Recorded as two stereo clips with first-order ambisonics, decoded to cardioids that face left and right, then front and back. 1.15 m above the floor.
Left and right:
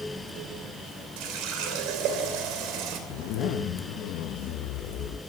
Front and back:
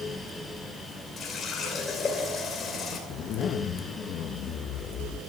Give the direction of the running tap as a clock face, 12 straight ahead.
2 o'clock.